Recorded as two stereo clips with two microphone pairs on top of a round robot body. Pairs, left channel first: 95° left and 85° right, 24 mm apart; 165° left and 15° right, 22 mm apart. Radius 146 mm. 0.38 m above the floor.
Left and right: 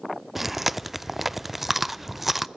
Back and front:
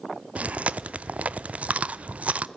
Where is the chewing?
5° right, 0.6 m.